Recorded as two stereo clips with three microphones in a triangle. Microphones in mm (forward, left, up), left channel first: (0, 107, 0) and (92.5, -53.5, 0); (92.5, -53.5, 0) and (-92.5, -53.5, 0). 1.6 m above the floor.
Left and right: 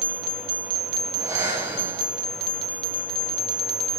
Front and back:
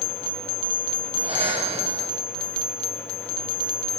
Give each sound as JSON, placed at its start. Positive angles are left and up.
{"t": 1.1, "sound": "breathing", "azimuth_deg": -130, "distance_m": 0.7}